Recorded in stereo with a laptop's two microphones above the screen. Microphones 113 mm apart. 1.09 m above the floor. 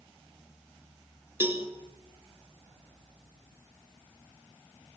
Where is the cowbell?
20° right (ahead or behind), 2.5 m.